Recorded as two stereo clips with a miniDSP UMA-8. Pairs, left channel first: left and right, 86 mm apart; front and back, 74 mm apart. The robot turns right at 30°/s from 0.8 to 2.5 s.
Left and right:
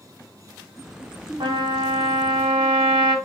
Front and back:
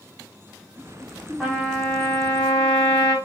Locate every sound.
1.4 s a trumpet: 80° right, 4.5 m; by 3.1 s 50° right, 4.5 m